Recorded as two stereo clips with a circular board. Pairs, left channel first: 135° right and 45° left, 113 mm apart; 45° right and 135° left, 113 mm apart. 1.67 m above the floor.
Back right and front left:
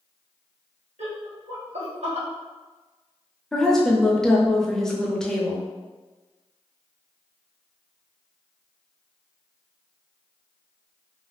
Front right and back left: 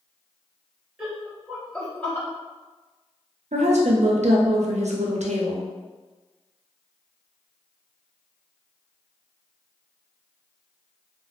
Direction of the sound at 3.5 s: 140° left.